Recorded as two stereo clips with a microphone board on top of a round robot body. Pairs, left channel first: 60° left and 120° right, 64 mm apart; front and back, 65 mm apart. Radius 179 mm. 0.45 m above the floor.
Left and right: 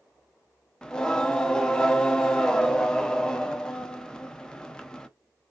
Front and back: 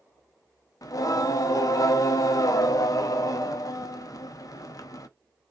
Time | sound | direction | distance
0.8 | singing | 15° right | 0.6 m